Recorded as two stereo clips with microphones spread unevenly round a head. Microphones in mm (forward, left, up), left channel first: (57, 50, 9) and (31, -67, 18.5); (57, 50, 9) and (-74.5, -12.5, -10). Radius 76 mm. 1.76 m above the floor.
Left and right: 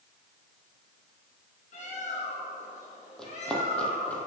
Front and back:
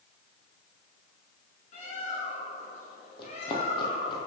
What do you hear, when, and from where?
1.7 s a bird: 55° left, 4 m
3.2 s running footsteps: 10° right, 2.5 m; by 4.3 s straight ahead, 2 m